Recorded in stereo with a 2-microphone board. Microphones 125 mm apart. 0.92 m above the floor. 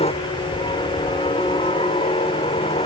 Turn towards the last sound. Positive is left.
turn(degrees=60)  # may be behind; listen again after turning